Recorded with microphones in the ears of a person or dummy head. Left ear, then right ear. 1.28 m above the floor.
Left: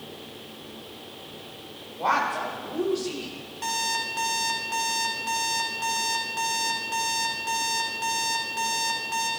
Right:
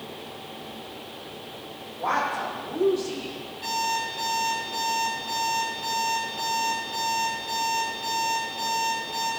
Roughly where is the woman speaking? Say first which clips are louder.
Left 1 dB; left.